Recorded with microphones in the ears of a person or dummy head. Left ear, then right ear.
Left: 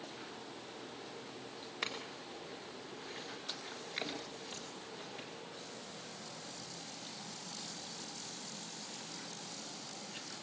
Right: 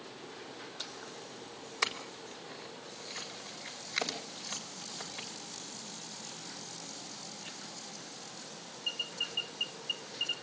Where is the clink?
45° right (ahead or behind), 4 m.